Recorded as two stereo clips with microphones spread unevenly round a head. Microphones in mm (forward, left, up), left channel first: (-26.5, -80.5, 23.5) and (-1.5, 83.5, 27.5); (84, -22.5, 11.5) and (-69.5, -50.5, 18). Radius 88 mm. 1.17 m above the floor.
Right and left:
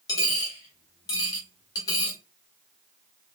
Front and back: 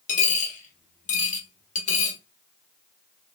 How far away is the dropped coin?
About 1.4 m.